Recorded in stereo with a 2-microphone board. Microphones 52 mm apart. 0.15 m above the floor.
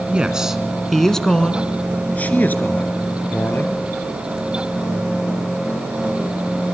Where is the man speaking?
20° right (ahead or behind), 1.3 m; by 3.8 s 45° left (ahead or behind), 3 m.